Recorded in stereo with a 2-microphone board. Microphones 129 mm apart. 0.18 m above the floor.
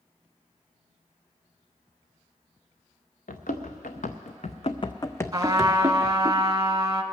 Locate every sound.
3.3 s running footsteps: 85° left, 1.2 m; by 6.3 s 25° right (ahead or behind), 0.9 m
5.3 s a trumpet: 30° right (ahead or behind), 0.7 m